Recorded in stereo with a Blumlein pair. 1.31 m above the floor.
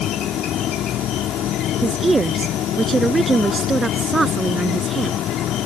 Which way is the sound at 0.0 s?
30° left.